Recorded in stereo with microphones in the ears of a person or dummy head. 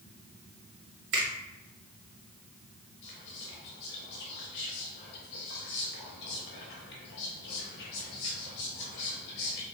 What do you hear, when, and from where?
1.1 s a finger snap: 45° right (ahead or behind), 0.9 m
3.0 s whispering: 60° left (ahead or behind), 0.8 m